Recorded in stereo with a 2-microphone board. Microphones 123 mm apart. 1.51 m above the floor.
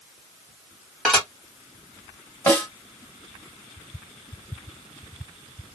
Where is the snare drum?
20° left (ahead or behind), 1.9 m.